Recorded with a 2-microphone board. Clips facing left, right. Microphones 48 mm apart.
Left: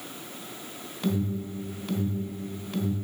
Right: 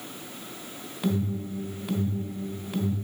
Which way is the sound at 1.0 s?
10° right (ahead or behind).